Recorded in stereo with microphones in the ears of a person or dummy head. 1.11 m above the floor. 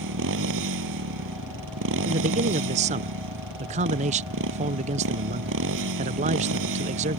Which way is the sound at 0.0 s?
60° right (ahead or behind).